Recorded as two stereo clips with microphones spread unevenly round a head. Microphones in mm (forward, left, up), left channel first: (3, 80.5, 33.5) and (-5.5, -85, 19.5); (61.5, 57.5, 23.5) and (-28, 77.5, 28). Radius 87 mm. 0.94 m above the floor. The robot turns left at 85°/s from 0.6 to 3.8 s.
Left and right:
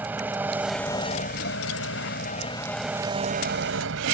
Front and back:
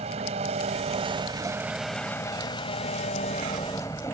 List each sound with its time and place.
0.0 s an engine running: 175° right; by 4.2 s 85° right